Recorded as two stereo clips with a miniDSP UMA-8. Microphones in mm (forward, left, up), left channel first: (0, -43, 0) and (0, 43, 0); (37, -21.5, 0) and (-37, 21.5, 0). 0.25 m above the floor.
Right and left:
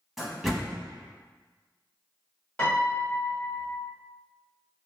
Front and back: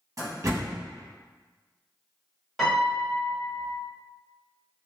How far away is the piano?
About 1.1 m.